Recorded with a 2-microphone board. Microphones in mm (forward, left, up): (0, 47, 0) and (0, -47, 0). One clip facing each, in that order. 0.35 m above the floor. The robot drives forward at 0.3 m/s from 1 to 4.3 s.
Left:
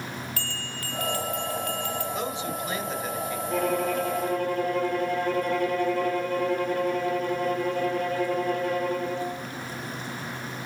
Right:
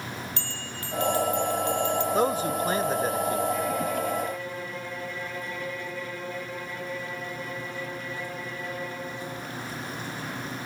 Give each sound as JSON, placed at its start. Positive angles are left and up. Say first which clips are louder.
{"t": 0.4, "sound": "a bell", "louder": "left 1 dB", "side_deg": -25, "distance_m": 3.0}
{"t": 2.1, "sound": "a man speaking", "louder": "right 6 dB", "side_deg": -45, "distance_m": 1.2}
{"t": 3.5, "sound": "a violin", "louder": "left 2 dB", "side_deg": 60, "distance_m": 2.0}